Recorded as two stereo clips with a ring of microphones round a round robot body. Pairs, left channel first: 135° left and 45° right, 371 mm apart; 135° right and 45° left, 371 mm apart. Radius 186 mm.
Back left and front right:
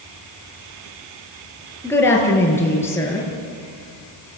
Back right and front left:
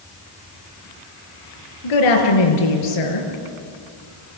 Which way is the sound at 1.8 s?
140° right.